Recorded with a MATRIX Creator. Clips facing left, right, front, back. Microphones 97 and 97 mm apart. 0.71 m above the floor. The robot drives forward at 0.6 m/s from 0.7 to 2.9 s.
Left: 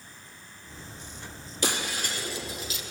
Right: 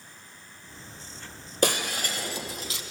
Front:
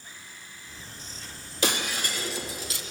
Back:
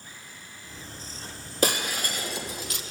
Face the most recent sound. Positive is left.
turn(degrees=-140)